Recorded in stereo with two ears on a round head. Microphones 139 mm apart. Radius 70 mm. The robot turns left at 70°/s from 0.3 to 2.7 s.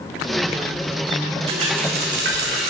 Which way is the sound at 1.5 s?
35° right.